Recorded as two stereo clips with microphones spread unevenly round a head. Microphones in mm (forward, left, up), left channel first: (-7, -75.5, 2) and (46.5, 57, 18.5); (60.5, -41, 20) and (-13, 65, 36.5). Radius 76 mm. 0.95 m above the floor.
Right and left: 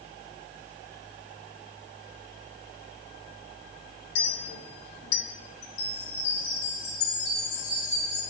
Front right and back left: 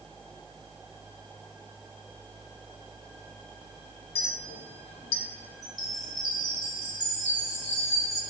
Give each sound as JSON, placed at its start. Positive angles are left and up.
{"t": 4.2, "sound": "a clink", "azimuth_deg": -100, "distance_m": 0.6}
{"t": 5.6, "sound": "a chime", "azimuth_deg": -150, "distance_m": 3.0}